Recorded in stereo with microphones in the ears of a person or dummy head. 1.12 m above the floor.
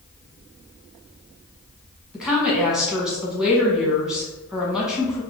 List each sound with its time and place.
2.1 s a woman speaking: centre (ahead or behind), 0.9 m